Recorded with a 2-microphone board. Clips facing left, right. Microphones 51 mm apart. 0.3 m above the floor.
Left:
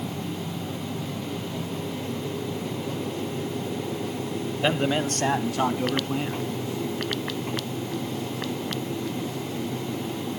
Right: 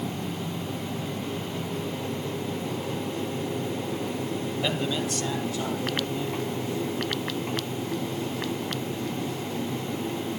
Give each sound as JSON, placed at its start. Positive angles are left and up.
{"t": 4.6, "sound": "a man speaking", "side_deg": 30, "distance_m": 1.0}